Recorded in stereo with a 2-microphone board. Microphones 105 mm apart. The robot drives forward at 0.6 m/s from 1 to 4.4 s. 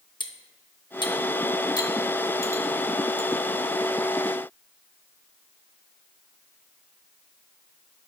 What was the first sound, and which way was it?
Cutlery clinking, 45° left (ahead or behind).